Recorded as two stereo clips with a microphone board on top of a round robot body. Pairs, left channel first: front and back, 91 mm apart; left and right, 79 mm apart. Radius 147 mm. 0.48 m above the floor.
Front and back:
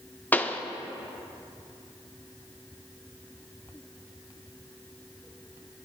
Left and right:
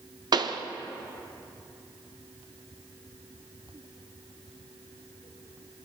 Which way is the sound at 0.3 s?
70° right.